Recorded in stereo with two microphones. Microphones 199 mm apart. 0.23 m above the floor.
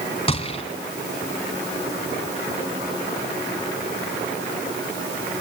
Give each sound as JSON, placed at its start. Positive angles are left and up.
{"t": 0.3, "sound": "a gunshot", "side_deg": 30, "distance_m": 2.5}